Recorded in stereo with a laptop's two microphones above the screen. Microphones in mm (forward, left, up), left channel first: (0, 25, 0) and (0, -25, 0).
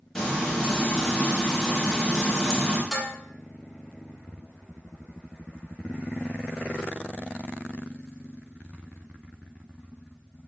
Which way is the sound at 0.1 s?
10° left (ahead or behind).